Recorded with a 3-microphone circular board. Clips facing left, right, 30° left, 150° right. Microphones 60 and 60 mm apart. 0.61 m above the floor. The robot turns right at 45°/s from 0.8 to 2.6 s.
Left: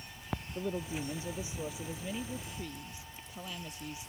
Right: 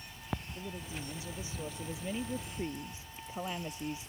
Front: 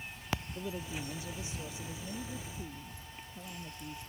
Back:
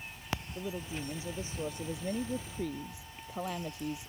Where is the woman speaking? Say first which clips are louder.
Left 6 dB, back 1 dB; 130° left; by 4.1 s 150° right.